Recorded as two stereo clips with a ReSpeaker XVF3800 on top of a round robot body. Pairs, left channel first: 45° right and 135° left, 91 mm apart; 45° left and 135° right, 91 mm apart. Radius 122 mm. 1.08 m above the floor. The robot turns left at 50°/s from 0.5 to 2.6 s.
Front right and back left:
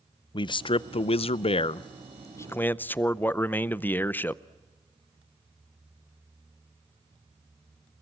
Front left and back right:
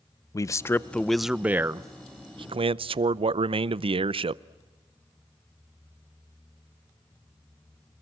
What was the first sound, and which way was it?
A man speaking, 10° right.